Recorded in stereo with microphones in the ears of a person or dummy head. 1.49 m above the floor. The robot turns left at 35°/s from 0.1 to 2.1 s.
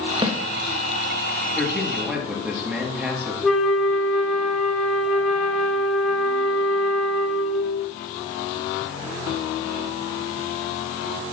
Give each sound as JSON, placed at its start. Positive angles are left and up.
{"t": 0.2, "sound": "a snare drum", "side_deg": -35, "distance_m": 1.2}
{"t": 1.6, "sound": "a man speaking", "side_deg": 20, "distance_m": 2.0}
{"t": 3.4, "sound": "a flute", "side_deg": -5, "distance_m": 0.8}